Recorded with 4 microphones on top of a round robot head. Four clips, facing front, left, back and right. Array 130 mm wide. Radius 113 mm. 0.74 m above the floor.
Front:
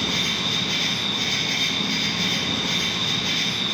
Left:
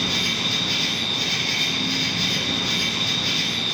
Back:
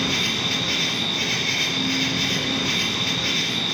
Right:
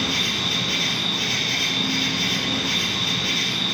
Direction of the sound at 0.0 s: 165° left.